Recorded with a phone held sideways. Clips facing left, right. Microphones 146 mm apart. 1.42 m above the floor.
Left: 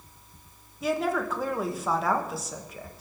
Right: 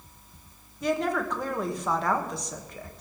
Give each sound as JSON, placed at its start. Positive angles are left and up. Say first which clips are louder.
{"t": 0.8, "sound": "a woman speaking", "louder": "even", "side_deg": 5, "distance_m": 1.5}